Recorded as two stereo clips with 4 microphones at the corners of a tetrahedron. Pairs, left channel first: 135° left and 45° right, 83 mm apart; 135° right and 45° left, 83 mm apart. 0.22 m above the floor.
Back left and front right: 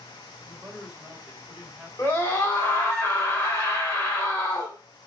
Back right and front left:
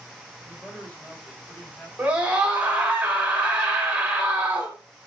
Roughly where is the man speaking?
Right.